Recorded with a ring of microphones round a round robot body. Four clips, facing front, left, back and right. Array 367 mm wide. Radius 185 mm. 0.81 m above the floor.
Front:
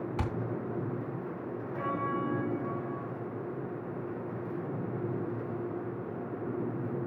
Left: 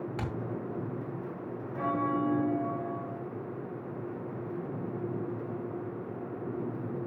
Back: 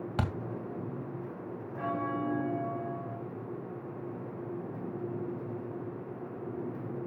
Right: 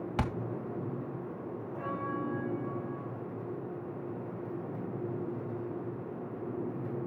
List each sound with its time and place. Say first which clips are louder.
0.2 s a thud: right 7 dB, back 3 dB; 140° right, 1.9 m
1.8 s a bell: left 7 dB, even; 105° left, 1.7 m